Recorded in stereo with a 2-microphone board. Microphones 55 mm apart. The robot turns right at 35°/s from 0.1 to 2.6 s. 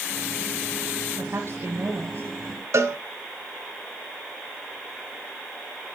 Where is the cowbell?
65° right (ahead or behind), 1.1 m.